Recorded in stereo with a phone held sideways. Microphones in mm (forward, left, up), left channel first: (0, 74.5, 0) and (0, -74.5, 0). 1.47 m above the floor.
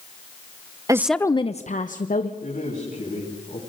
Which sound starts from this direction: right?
A woman speaking, at 0.9 s.